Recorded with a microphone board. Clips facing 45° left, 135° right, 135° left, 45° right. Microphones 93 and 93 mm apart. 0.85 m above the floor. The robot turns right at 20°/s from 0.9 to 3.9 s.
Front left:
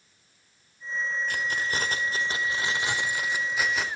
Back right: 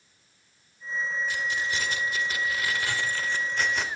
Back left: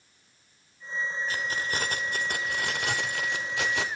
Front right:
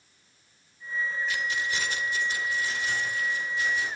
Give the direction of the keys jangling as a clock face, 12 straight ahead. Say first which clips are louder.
Even, front right 1 dB; 9 o'clock.